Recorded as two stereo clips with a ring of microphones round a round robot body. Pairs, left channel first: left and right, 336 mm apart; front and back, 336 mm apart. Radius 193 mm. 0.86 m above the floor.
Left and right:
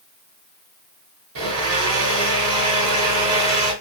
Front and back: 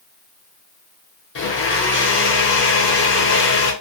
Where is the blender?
50° right, 0.7 m.